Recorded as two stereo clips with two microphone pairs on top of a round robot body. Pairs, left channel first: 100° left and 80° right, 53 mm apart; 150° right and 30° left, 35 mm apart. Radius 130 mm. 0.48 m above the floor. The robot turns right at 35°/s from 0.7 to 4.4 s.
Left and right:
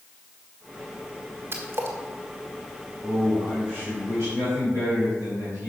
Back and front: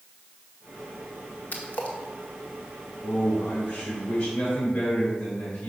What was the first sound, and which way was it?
A splash, 120° right.